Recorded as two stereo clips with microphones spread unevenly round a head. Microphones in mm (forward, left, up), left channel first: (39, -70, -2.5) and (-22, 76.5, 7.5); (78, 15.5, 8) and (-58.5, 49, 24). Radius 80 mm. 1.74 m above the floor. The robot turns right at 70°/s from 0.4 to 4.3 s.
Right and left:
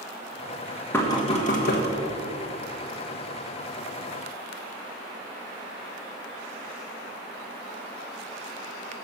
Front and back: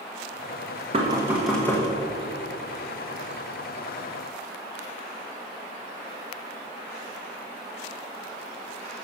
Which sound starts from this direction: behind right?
Knocking, at 0.9 s.